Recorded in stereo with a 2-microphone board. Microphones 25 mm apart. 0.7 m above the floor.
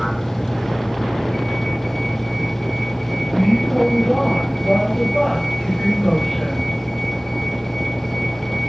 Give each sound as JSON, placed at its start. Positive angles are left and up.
{"t": 0.0, "sound": "a vehicle", "side_deg": 5}